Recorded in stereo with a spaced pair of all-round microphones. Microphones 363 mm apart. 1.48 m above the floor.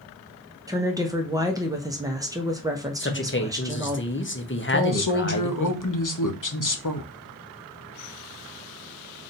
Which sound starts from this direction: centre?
A woman speaking, at 0.7 s.